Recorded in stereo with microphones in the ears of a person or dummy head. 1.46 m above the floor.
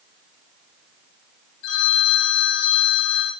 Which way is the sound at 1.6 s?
60° left (ahead or behind).